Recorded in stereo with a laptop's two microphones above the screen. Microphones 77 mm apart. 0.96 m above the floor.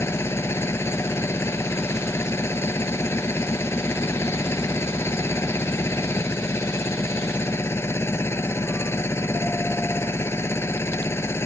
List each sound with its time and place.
0.0 s a machine running: 35° left (ahead or behind)